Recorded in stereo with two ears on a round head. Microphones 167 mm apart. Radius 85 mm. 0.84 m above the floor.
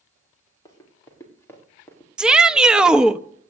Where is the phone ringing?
No phone ringing in this recording.